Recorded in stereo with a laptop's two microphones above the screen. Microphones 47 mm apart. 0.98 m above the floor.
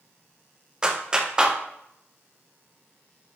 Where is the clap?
20° right (ahead or behind), 0.5 m.